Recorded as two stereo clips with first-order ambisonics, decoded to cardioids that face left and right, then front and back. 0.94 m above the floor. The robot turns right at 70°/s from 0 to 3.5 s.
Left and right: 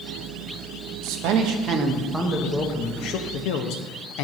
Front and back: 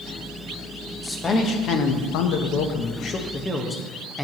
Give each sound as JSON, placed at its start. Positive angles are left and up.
{"t": 1.0, "sound": "a man speaking", "azimuth_deg": -85, "distance_m": 0.6}